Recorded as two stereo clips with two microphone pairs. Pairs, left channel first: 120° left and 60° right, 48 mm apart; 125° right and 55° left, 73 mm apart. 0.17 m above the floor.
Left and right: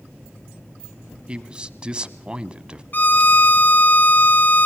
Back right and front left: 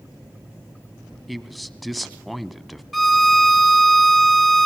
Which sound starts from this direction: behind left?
A violin, at 2.9 s.